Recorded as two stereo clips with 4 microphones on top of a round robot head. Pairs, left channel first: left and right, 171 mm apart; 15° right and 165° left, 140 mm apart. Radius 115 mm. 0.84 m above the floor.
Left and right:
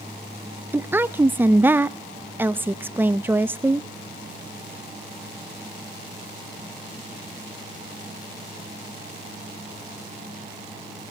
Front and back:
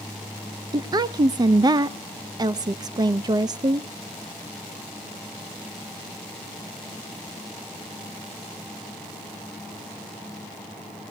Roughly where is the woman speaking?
Behind.